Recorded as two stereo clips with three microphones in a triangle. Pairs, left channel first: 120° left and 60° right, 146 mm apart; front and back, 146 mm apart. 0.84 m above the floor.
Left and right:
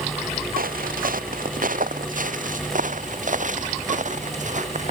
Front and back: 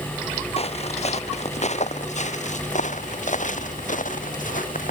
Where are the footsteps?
45° right; by 4.9 s 25° right.